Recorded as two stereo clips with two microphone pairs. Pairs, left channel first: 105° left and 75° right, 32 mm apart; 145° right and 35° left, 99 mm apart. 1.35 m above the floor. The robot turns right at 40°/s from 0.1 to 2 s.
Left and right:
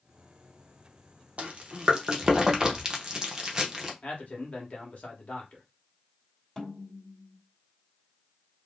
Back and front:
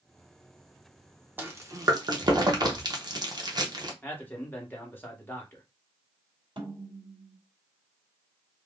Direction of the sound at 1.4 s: 35° right.